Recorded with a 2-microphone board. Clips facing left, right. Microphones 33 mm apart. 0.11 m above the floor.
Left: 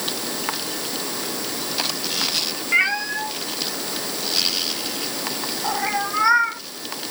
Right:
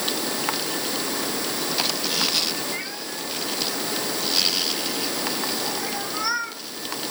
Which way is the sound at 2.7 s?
55° left (ahead or behind).